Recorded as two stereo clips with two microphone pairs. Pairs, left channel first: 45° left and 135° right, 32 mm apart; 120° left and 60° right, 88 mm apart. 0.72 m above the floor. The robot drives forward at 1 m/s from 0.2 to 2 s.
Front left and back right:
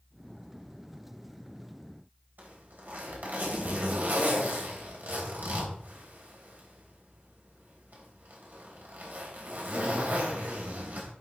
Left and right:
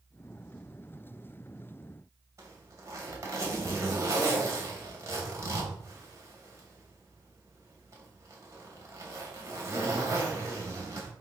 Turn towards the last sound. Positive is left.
turn(degrees=-110)